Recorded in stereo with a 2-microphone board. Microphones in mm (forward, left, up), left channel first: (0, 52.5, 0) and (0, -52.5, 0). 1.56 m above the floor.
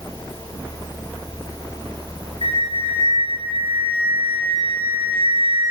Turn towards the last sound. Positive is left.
turn(degrees=65)  # may be behind; listen again after turning